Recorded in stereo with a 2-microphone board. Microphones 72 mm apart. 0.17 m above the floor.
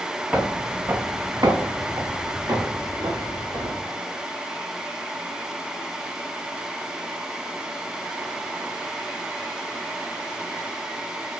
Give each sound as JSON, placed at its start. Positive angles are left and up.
{"t": 0.3, "sound": "footsteps", "side_deg": -15, "distance_m": 0.7}